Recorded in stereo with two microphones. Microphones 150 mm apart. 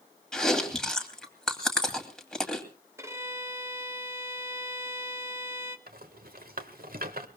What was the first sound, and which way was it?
Chewing, 5° left (ahead or behind).